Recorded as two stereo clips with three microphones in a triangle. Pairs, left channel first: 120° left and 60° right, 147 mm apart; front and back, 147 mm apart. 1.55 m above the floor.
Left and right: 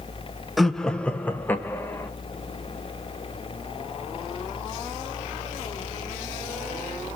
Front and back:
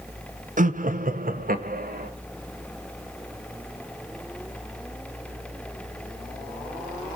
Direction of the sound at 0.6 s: 150° right.